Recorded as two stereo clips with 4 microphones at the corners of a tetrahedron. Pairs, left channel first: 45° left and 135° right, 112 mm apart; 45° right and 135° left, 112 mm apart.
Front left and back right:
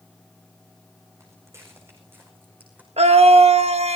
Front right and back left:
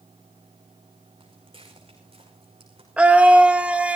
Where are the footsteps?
165° left, 5.5 m; by 2.9 s 150° left, 5.5 m.